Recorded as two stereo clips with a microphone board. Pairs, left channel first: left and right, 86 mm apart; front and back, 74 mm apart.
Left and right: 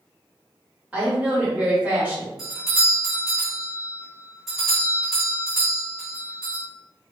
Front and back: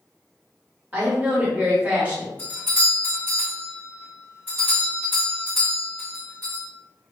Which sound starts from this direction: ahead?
A doorbell, at 2.4 s.